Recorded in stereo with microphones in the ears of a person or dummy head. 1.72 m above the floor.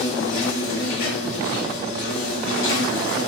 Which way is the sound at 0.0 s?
55° left (ahead or behind).